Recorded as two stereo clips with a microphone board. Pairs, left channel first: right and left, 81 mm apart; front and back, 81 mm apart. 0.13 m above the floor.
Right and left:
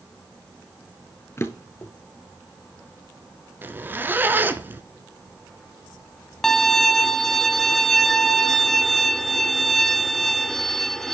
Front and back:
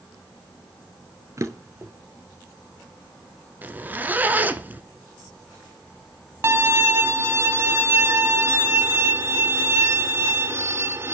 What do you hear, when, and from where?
1.4 s a drawer: 140° right, 1.3 m
3.6 s a zipper: 130° left, 0.9 m
6.4 s a violin: 175° right, 0.7 m